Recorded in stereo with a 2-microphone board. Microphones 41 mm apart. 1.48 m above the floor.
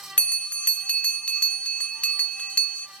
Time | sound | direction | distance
0.2 | a bell | 25° left (ahead or behind) | 1.0 m